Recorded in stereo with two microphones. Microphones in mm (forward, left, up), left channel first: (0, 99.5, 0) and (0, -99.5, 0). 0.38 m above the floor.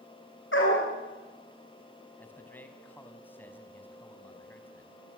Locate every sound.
0.5 s a dog barking: 70° left (ahead or behind), 8.5 m
2.2 s a man speaking: 10° left (ahead or behind), 3.5 m